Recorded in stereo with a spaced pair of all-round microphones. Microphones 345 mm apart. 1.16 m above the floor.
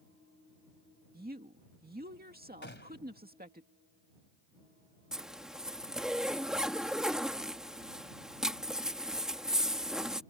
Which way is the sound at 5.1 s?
Centre (ahead or behind).